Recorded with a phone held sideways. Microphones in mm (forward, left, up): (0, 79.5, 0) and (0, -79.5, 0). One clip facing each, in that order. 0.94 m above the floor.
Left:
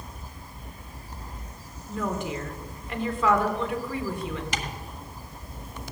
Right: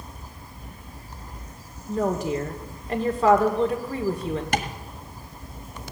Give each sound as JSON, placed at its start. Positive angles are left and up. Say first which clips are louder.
{"t": 1.9, "sound": "a woman speaking", "louder": "right 6 dB", "side_deg": -40, "distance_m": 2.5}
{"t": 4.5, "sound": "tapping", "louder": "right 6 dB", "side_deg": -65, "distance_m": 1.4}